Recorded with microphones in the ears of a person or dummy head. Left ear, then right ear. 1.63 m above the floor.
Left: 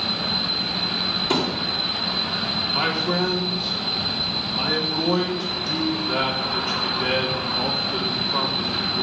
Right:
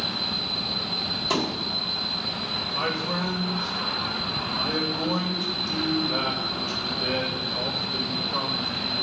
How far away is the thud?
About 1.6 m.